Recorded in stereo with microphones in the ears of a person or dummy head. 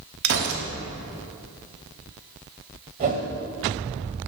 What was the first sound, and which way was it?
A gunshot, 60° right (ahead or behind).